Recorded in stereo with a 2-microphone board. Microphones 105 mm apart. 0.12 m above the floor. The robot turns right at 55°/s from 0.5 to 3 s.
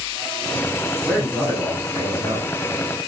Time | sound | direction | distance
1.1 | a man speaking | 170° left | 8.5 m